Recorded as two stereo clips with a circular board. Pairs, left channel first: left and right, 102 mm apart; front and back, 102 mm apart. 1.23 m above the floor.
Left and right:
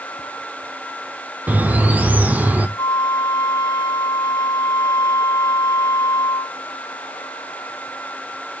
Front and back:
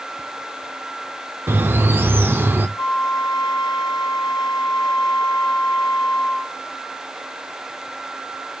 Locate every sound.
1.5 s a bird: 145° right, 0.9 m
2.8 s a flute: 35° left, 1.6 m